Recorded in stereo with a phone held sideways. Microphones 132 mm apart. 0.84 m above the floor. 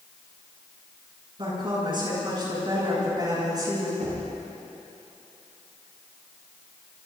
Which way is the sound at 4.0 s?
70° right (ahead or behind).